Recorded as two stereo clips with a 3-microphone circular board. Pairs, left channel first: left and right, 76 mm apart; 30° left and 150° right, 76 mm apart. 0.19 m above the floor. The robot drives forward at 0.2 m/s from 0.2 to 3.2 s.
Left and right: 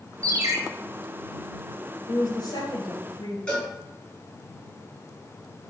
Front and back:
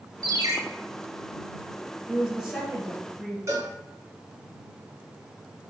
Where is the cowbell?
165° left, 3.5 m.